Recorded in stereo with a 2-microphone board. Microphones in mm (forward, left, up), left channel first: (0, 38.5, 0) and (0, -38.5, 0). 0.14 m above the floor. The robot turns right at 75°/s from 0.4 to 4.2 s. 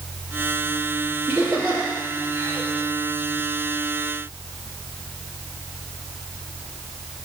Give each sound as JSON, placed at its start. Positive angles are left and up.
{"t": 1.3, "sound": "laughter", "side_deg": -30, "distance_m": 3.0}